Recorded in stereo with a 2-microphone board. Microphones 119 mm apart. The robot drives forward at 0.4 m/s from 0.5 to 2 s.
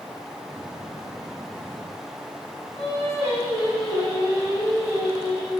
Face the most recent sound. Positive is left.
turn(degrees=-60)  # may be behind; listen again after turning